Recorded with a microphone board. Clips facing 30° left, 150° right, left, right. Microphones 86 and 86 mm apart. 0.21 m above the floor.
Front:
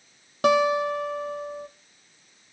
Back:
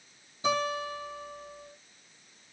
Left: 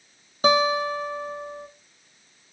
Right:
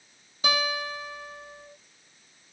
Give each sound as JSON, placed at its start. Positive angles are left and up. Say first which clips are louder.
{"t": 0.4, "sound": "a guitar", "louder": "front 9 dB, left 9 dB", "azimuth_deg": 35, "distance_m": 2.5}